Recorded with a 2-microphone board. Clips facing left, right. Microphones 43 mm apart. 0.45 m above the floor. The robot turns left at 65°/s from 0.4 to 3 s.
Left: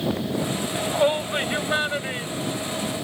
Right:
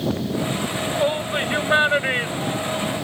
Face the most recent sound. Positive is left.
turn(degrees=-55)  # may be behind; listen again after turning